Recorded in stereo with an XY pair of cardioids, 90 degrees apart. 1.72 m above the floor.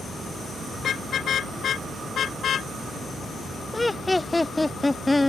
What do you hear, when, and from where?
0.8 s a car horn: 65° left; by 2.7 s 60° left
3.7 s laughter: 20° left